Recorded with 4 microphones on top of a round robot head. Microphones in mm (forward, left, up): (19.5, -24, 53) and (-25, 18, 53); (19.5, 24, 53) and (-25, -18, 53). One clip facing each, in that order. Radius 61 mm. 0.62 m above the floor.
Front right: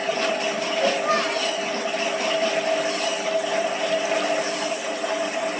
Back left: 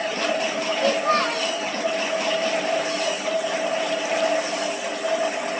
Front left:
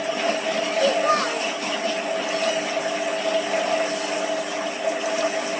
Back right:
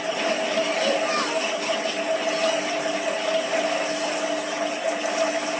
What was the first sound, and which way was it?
A child speaking, 40° left.